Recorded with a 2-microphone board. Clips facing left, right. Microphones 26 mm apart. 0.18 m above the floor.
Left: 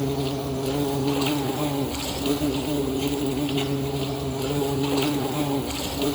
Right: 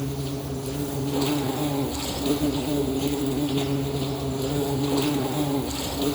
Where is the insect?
85° left, 0.9 m.